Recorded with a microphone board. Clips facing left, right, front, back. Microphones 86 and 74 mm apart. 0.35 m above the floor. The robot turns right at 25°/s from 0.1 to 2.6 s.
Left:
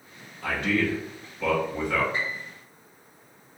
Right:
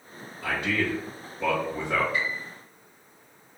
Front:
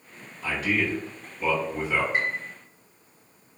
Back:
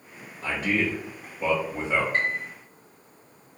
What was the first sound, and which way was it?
A man speaking, 165° right.